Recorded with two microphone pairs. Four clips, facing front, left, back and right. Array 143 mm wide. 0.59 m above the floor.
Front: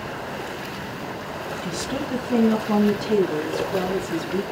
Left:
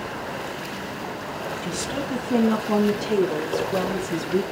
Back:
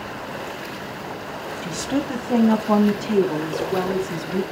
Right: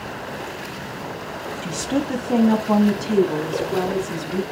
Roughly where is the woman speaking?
Behind right.